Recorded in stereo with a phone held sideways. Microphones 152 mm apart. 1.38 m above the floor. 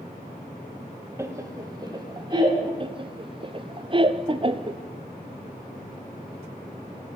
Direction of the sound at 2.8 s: 30° right (ahead or behind).